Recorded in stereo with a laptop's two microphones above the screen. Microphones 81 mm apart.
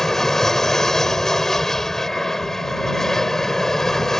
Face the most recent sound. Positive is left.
turn(degrees=5)  # may be behind; listen again after turning